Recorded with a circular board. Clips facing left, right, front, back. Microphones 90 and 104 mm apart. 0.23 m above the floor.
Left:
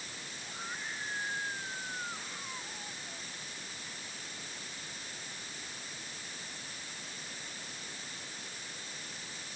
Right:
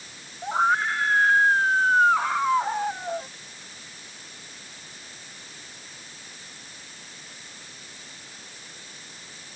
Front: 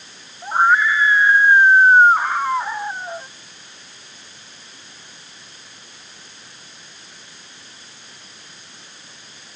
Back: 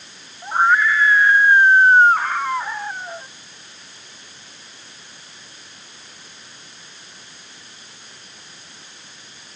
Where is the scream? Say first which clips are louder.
Right 22 dB, front 1 dB; 80° right; by 3.3 s 75° right.